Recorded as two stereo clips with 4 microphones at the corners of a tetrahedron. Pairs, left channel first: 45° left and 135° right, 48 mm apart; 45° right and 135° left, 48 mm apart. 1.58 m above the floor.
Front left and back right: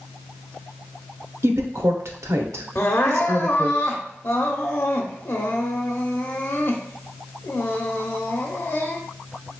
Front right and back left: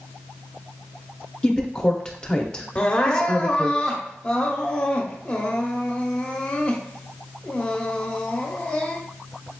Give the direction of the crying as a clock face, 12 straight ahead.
11 o'clock.